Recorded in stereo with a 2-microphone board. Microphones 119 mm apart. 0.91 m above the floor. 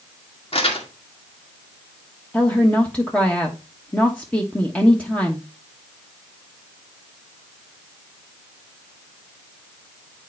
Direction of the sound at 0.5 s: 50° left (ahead or behind).